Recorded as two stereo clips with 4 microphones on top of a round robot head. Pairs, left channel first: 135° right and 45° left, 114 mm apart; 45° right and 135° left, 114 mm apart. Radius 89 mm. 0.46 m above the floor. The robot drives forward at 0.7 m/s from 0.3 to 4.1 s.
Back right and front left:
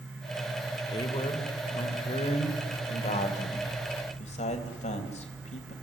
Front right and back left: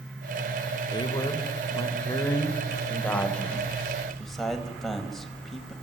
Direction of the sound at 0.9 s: 90° right.